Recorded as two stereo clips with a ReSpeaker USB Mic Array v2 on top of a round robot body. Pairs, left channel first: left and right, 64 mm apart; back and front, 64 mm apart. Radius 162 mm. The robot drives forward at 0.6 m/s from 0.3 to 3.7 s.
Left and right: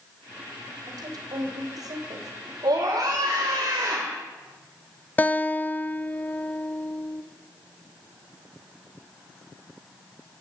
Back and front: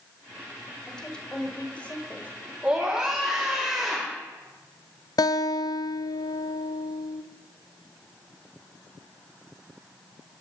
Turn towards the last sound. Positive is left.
turn(degrees=155)